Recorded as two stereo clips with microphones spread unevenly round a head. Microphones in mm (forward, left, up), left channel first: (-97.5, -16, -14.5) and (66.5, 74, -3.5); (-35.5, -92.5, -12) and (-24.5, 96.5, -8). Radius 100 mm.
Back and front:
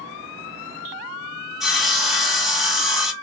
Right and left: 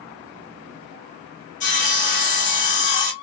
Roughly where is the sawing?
Ahead right.